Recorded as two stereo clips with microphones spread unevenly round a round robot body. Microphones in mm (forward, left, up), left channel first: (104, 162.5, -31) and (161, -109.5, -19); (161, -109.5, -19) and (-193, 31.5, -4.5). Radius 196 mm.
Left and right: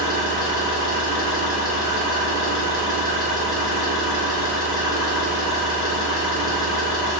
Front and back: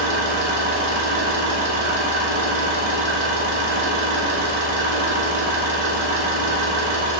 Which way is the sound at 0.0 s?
130° left.